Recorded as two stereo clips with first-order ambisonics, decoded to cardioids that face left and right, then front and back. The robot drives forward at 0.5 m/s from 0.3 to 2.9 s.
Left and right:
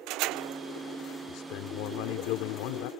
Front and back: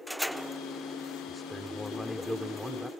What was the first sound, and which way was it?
A man speaking, 75° left.